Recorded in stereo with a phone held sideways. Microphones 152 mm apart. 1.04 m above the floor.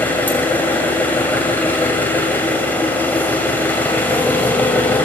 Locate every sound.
0.0 s an engine running: 10° left (ahead or behind), 2.5 m